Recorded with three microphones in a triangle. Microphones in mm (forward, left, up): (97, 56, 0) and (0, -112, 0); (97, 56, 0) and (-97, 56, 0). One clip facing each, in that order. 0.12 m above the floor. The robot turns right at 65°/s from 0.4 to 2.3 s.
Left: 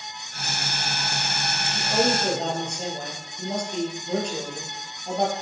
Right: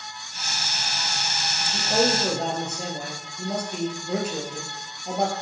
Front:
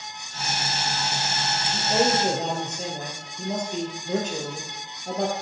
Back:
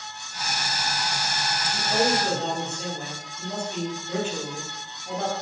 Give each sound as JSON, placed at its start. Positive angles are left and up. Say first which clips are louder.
{"t": 1.6, "sound": "a man speaking", "louder": "right 1 dB, front 2 dB", "azimuth_deg": -85, "distance_m": 2.5}